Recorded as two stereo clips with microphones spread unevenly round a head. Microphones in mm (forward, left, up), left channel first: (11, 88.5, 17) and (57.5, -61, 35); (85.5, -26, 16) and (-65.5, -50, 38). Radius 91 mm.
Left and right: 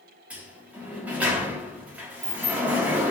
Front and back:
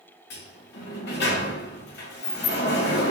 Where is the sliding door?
5° left, 1.2 m.